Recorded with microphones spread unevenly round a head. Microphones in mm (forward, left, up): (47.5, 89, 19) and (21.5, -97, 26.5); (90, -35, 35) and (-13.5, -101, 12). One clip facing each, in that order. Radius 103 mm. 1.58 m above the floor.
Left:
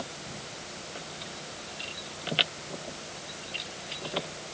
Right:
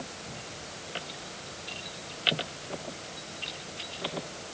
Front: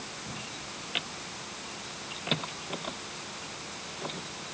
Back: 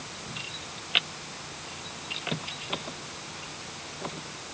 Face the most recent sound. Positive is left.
No sound to turn to.